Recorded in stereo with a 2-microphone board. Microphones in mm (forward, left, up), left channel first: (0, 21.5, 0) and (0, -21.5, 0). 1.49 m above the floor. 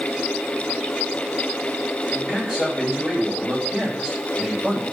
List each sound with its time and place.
2.1 s a man speaking: 15° right (ahead or behind), 9 m